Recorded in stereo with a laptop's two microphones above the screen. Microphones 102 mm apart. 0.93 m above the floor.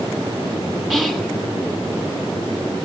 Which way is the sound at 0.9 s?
10° right (ahead or behind).